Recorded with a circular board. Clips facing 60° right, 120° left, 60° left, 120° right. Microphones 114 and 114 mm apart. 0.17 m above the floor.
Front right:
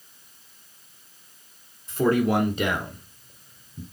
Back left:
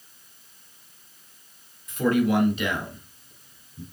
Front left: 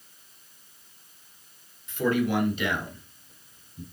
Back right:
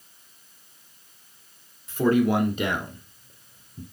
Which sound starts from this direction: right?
A man speaking, at 1.9 s.